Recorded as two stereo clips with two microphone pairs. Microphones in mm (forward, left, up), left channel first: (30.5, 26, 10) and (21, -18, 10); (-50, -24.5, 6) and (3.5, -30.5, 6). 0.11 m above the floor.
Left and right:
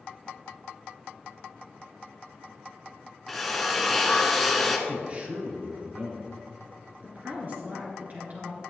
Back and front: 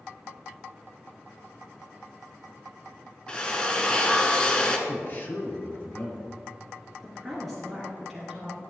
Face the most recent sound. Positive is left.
turn(degrees=-100)